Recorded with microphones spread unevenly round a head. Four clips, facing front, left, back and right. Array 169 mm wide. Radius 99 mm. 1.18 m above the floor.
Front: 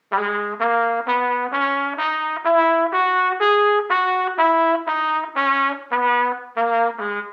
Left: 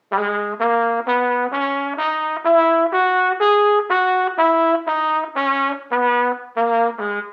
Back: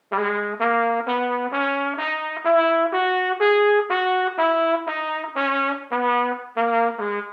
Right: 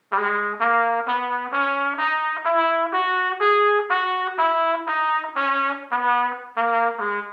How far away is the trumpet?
About 0.7 m.